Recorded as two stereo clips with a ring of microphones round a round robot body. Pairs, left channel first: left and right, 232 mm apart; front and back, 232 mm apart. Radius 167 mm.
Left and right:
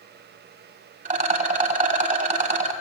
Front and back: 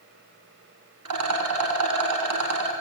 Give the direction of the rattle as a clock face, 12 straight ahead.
5 o'clock.